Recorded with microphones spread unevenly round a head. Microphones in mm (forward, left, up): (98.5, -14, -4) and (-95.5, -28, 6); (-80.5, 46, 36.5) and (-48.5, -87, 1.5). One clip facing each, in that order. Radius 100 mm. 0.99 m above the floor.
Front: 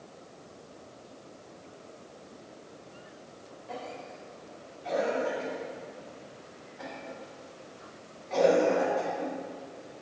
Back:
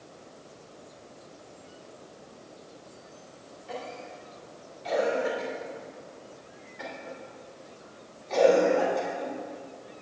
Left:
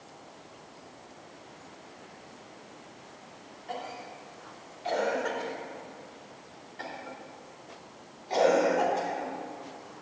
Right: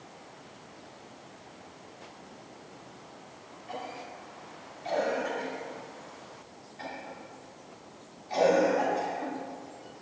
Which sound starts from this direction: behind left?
A cough, at 3.7 s.